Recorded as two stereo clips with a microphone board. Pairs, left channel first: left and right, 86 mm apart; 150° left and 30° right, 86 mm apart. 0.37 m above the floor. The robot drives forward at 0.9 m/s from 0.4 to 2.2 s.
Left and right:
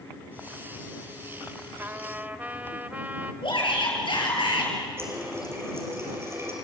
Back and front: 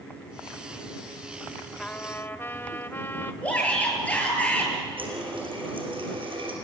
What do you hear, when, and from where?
1.8 s a trumpet: 140° right, 1.0 m; by 3.3 s 155° right, 1.2 m
3.4 s a shout: 75° left, 7.5 m
5.0 s a running tap: 30° right, 5.5 m